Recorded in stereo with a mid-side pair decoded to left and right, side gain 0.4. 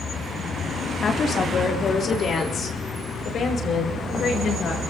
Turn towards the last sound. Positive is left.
turn(degrees=65)